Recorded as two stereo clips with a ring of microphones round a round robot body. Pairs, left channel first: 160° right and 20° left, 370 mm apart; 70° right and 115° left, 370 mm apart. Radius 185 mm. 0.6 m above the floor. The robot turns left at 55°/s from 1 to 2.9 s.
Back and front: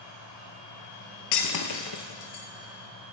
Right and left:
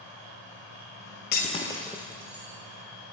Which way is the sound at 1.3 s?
125° right.